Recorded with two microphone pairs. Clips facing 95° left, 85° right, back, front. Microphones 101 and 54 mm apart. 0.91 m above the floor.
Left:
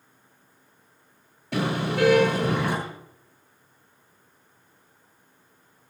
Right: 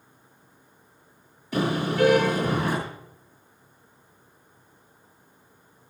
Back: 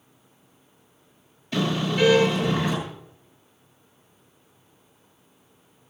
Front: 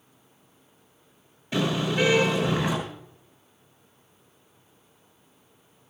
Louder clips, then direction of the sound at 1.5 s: Right 1 dB, even; 70° left.